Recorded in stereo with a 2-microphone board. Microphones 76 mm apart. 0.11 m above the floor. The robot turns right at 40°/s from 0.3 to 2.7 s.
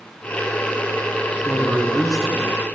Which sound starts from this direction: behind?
A man speaking, at 1.4 s.